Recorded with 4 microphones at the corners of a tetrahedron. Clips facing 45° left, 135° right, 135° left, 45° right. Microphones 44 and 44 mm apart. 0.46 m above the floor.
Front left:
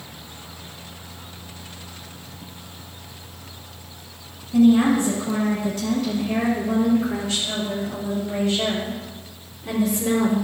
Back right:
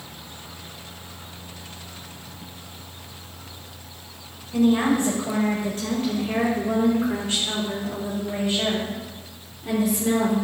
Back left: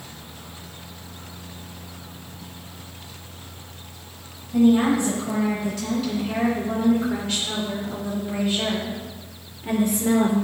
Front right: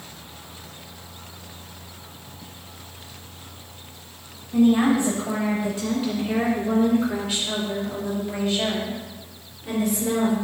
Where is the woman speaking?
100° right, 2.5 m; by 10.4 s 135° left, 1.6 m.